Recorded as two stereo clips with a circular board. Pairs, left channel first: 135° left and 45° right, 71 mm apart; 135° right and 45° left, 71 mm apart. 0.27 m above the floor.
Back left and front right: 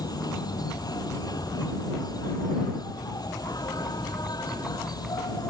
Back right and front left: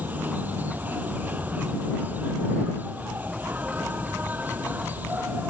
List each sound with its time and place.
0.0 s an insect: 110° left